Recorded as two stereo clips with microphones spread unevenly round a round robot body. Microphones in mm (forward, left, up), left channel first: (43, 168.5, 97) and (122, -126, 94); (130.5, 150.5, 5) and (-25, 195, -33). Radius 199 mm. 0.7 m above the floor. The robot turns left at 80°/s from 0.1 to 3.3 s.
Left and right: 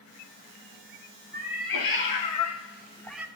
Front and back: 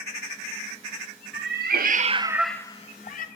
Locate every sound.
1.3 s a cat meowing: 160° left, 0.5 m; by 3.3 s 5° left, 0.5 m